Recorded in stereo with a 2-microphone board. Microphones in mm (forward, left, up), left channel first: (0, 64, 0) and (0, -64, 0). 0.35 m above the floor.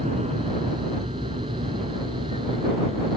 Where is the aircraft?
55° right (ahead or behind); by 3.2 s 50° right (ahead or behind).